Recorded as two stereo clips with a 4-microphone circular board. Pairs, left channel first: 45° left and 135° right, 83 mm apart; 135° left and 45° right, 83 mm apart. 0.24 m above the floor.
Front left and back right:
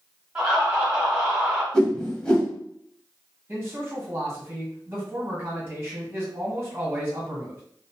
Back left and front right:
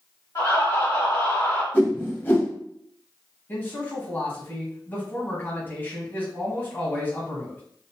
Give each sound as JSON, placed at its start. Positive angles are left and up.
{"t": 0.3, "sound": "laughter", "azimuth_deg": 145, "distance_m": 1.9}
{"t": 1.7, "sound": "a whoosh", "azimuth_deg": 115, "distance_m": 1.1}
{"t": 3.5, "sound": "a man speaking", "azimuth_deg": -175, "distance_m": 1.5}